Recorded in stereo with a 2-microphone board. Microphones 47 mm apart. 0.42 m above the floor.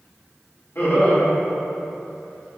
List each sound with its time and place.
0.8 s laughter: 65° left (ahead or behind), 2.0 m